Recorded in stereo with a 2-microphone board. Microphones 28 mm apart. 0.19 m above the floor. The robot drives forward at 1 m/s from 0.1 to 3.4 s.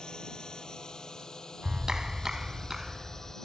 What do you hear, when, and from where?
0.0 s a drone: 30° left (ahead or behind); by 3.4 s 20° left (ahead or behind)
1.6 s a clap: 25° right (ahead or behind); by 3.3 s 10° right (ahead or behind)